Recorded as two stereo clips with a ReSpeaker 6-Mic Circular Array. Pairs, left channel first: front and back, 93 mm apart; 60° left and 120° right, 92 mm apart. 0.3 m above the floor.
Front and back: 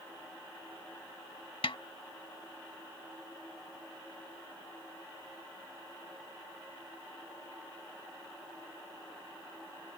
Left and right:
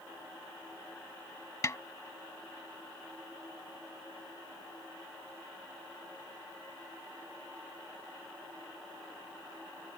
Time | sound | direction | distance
1.6 | a snare drum | 5° left | ?